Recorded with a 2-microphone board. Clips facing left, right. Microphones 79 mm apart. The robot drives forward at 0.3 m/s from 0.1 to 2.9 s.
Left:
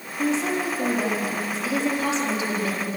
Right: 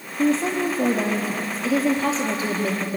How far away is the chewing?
No chewing in this recording.